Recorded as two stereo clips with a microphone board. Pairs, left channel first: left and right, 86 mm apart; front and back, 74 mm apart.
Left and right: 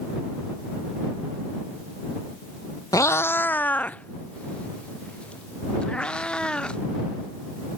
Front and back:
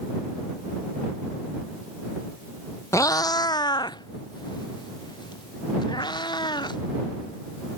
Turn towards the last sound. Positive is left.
turn(degrees=10)